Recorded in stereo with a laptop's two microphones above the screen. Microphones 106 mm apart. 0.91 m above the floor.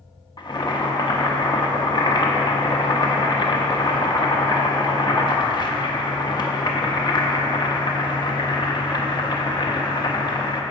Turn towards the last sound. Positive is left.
turn(degrees=45)  # may be behind; listen again after turning